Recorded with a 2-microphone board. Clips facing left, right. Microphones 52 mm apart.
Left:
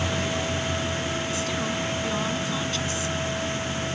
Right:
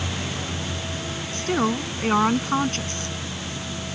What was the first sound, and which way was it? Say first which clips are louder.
A woman speaking: right 4 dB; 45° right (ahead or behind).